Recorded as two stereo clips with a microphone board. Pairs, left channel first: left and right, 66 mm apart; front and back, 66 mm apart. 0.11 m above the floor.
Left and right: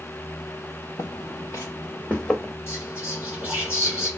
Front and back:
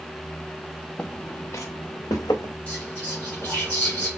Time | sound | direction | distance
1.0 | footsteps | 75° left | 0.8 m
2.7 | whispering | 65° left | 2.5 m